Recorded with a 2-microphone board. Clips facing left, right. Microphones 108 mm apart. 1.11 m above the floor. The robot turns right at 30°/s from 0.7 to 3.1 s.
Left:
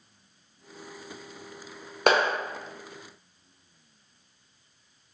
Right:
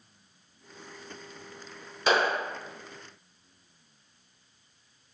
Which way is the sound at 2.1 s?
60° left (ahead or behind).